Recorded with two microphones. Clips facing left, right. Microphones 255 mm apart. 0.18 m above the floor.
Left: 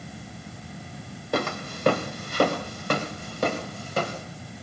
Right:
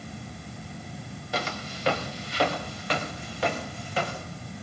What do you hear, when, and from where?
1.3 s footsteps: 55° left (ahead or behind), 2.5 m; by 4.2 s 45° left (ahead or behind), 5 m